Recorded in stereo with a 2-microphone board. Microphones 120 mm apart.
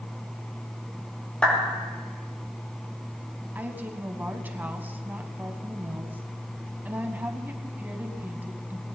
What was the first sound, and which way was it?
A clap, 10° left (ahead or behind).